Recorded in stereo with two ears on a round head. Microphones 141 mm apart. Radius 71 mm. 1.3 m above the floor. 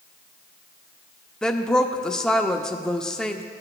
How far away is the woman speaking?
About 0.6 m.